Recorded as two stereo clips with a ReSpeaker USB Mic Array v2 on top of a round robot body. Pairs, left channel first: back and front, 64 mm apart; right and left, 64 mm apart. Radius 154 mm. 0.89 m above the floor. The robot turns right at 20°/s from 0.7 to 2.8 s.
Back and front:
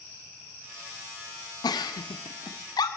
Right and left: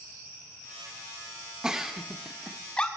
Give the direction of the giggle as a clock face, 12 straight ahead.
6 o'clock.